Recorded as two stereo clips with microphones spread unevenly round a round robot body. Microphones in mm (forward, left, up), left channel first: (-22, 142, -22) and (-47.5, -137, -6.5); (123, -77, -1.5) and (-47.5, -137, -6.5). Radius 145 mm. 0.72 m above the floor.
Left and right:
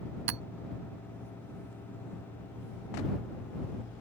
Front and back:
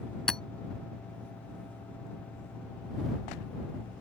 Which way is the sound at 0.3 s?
70° right.